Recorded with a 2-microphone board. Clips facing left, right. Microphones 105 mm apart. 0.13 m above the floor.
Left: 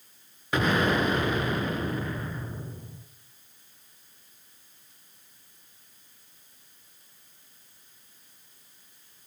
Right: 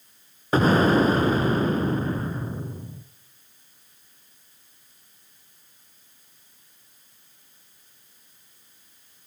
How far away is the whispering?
No whispering in this recording.